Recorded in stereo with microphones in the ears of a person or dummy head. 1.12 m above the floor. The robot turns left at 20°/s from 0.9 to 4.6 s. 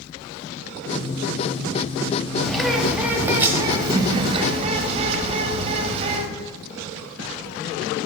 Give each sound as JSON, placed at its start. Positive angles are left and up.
{"t": 2.4, "sound": "a bird", "azimuth_deg": 5, "distance_m": 0.9}